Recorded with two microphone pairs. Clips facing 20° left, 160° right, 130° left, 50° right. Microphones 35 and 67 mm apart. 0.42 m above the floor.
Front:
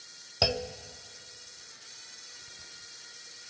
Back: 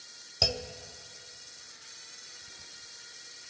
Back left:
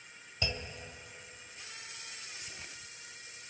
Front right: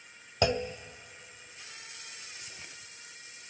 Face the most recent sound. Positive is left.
turn(degrees=-50)